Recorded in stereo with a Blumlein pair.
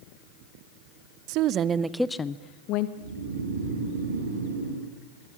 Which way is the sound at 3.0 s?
65° right.